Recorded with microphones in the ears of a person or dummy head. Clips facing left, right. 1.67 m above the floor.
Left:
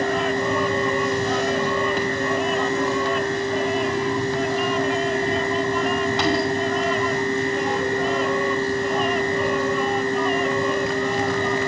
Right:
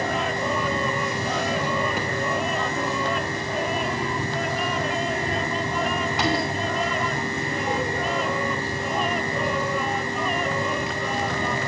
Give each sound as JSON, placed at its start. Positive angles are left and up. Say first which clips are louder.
{"t": 0.0, "sound": "a fan", "louder": "left 4 dB", "side_deg": -15, "distance_m": 2.5}